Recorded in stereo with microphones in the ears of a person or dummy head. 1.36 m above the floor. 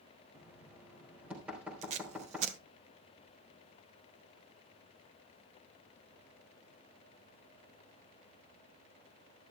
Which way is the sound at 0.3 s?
10° right (ahead or behind).